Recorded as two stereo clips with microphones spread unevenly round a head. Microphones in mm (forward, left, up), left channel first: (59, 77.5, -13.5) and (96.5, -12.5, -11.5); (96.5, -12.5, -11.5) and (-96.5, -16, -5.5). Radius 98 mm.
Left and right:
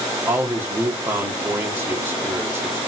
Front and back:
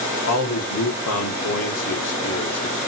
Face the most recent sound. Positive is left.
turn(degrees=0)